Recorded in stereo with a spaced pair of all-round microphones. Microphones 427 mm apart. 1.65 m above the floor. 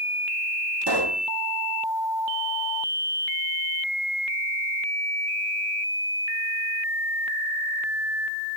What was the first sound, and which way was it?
A pop, 70° right (ahead or behind).